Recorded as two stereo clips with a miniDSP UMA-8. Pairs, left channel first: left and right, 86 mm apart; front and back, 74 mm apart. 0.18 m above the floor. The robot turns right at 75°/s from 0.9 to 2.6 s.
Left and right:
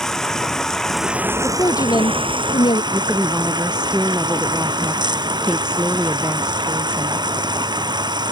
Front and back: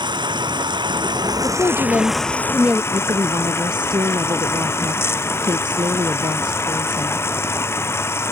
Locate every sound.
0.0 s running water: 175° left; by 8.3 s 60° right
1.4 s a woman speaking: 20° left; by 2.8 s 105° left
2.9 s a woman speaking: 170° right